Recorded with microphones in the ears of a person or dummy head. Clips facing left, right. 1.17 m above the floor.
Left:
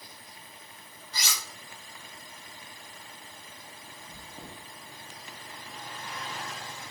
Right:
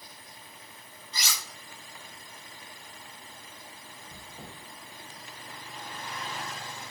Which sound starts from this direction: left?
Chewing, at 4.1 s.